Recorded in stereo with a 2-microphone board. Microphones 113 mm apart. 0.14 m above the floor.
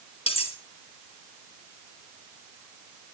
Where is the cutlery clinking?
60° left (ahead or behind), 1.9 m.